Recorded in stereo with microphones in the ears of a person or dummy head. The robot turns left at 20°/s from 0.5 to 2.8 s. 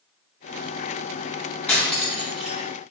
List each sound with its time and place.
1.7 s cutlery clinking: 10° left (ahead or behind), 0.6 m; by 2.6 s 5° right (ahead or behind), 0.6 m